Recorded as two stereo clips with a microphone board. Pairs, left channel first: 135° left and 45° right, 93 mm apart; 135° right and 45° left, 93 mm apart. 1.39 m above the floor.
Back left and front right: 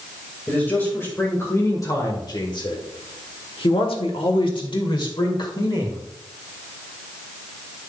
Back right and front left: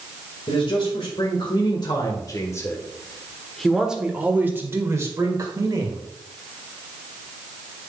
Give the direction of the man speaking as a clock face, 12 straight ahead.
5 o'clock.